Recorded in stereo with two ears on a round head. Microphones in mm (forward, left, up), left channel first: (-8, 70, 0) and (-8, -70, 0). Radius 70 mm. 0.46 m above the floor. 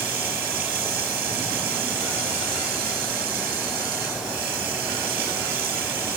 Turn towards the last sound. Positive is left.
turn(degrees=-65)  # may be behind; listen again after turning